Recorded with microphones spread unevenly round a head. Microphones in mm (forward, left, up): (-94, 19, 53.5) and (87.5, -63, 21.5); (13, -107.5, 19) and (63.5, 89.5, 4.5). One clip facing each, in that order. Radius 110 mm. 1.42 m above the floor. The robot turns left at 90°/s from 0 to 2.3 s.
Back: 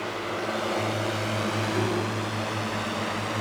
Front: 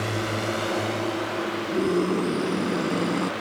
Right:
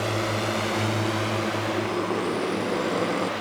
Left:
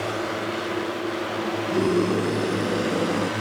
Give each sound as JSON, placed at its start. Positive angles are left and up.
{"t": 0.0, "sound": "a drone", "azimuth_deg": -30}
{"t": 1.7, "sound": "a scream", "azimuth_deg": 50}